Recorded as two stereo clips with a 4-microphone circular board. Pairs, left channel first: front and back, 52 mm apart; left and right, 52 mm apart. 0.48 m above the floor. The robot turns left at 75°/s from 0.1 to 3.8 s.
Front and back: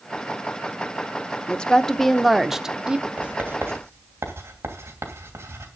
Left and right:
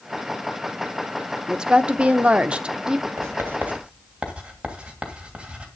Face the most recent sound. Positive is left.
turn(degrees=-155)